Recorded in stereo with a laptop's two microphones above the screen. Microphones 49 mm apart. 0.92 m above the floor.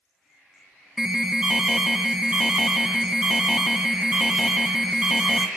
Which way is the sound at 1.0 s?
15° right (ahead or behind).